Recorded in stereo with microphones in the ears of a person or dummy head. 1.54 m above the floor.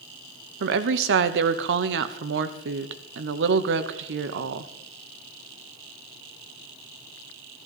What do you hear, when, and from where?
0.6 s a woman speaking: 65° right (ahead or behind), 0.9 m